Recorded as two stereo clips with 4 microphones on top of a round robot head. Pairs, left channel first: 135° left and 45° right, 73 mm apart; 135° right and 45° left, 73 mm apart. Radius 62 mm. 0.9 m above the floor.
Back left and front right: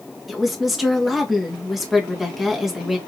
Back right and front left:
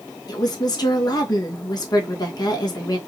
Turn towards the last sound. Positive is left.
turn(degrees=-130)